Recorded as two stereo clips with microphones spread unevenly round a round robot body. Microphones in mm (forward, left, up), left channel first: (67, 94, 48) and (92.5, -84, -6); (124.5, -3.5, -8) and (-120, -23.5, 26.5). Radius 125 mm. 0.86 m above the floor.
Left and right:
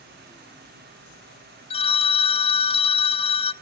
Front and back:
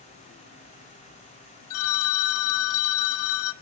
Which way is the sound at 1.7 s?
30° left.